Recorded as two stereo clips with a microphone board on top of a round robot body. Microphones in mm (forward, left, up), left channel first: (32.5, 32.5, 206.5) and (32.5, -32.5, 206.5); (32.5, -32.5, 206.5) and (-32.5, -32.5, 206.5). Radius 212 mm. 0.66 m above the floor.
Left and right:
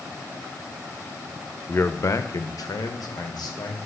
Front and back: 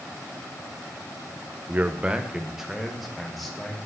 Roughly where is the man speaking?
Behind left.